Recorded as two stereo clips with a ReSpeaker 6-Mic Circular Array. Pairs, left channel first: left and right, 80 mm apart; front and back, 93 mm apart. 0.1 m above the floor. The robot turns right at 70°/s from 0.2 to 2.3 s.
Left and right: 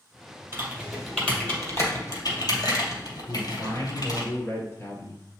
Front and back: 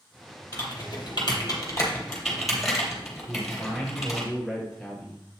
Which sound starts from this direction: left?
A man speaking, at 3.3 s.